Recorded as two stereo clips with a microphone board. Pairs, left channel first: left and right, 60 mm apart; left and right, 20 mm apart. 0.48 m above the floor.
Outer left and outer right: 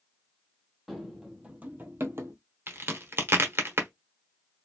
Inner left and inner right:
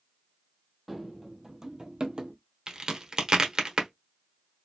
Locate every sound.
0.9 s running footsteps: centre (ahead or behind), 0.8 m; by 2.4 s 50° right (ahead or behind), 0.8 m
2.7 s a crack: 40° right (ahead or behind), 0.9 m